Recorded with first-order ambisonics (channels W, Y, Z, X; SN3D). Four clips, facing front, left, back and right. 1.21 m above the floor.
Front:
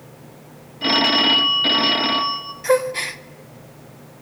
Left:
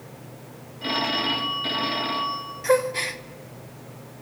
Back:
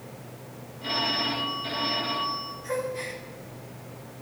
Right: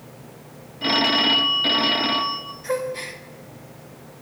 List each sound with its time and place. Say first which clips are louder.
0.8 s a phone ringing: right 6 dB, front 11 dB; 20° right, 0.7 m
2.6 s a gasp: left 5 dB, front 13 dB; 25° left, 0.6 m